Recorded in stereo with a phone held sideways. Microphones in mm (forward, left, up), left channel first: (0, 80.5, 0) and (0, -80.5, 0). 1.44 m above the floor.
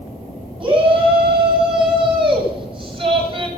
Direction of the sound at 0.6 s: 30° right (ahead or behind).